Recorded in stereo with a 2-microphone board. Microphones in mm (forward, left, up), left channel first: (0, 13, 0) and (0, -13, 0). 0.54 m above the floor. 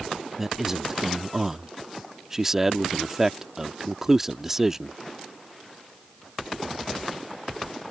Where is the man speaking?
15° right (ahead or behind).